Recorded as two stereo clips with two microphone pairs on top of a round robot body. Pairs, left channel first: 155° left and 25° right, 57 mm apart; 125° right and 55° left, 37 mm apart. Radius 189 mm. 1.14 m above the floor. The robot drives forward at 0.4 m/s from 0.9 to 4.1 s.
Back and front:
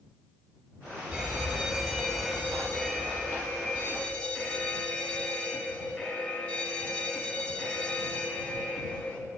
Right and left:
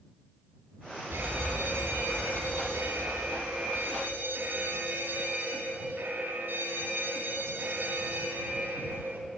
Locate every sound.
1.1 s an alarm: 60° left, 2 m; by 9.2 s 90° left, 1.8 m